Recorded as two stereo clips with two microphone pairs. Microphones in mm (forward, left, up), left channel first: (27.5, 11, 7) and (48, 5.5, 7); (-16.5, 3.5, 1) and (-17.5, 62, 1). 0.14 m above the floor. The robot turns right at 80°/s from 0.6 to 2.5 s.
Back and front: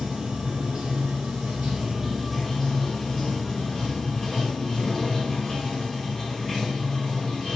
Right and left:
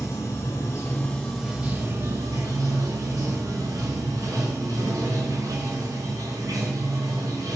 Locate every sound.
0.0 s running water: 65° right, 1.8 m; by 7.6 s 90° left, 1.8 m